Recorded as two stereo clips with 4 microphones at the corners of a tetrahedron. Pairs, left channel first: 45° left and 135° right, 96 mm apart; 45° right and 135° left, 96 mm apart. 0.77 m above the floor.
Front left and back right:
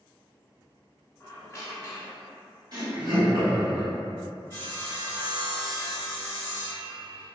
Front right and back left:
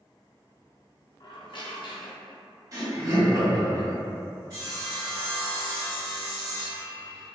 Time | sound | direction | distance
1.2 | a squeak | 10° right | 0.5 m
2.7 | laughter | 175° right | 1.5 m
4.5 | sawing | 175° left | 1.7 m